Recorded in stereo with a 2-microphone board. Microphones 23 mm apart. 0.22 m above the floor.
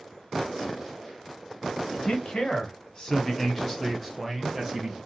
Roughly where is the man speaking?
Left.